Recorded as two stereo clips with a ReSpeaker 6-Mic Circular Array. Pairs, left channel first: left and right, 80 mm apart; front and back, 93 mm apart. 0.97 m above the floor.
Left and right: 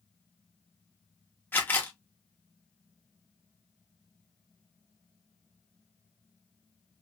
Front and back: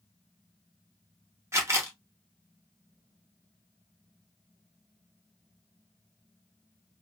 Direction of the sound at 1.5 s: 140° left.